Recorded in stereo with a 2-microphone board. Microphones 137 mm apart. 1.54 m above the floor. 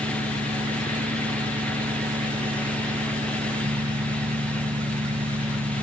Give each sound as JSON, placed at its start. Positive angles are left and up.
{"t": 0.0, "sound": "an engine running", "side_deg": -60}